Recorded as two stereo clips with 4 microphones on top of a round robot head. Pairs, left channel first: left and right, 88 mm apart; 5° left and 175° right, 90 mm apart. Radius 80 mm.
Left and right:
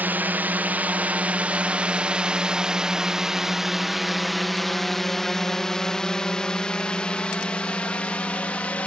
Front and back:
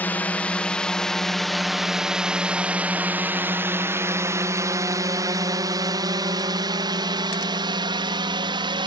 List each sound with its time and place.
0.0 s a drone: 50° right; by 8.9 s 165° left